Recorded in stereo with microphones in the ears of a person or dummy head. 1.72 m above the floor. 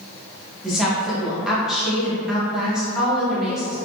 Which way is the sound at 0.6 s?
5° right (ahead or behind).